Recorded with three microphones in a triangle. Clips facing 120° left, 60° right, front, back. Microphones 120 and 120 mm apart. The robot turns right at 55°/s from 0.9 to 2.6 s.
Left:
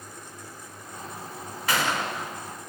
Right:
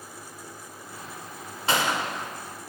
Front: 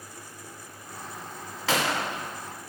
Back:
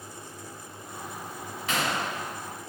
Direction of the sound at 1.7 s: 5° left.